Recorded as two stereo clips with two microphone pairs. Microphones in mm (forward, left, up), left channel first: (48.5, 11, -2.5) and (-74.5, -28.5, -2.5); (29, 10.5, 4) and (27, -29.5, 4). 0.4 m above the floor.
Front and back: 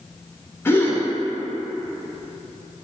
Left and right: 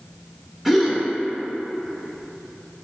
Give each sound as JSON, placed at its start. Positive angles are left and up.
{"t": 0.7, "sound": "a gasp", "azimuth_deg": -20, "distance_m": 0.6}